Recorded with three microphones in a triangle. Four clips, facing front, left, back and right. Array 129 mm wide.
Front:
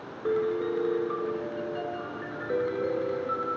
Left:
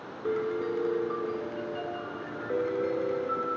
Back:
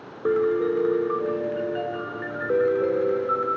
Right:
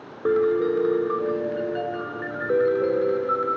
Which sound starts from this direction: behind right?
A piano, at 0.2 s.